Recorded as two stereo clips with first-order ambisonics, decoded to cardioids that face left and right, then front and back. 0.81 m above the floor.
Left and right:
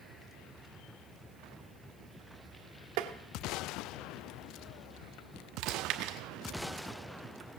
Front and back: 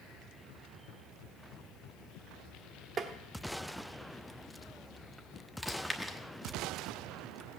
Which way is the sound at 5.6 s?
90° right.